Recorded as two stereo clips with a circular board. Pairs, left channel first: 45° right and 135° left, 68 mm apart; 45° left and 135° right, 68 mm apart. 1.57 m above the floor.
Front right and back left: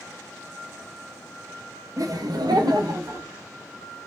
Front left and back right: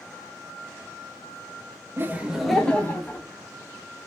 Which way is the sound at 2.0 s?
170° left.